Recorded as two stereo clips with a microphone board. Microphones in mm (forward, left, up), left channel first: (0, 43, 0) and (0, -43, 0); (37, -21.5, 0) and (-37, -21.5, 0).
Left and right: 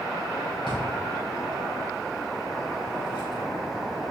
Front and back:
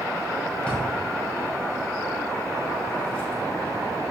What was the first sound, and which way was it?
A drawer, 75° left.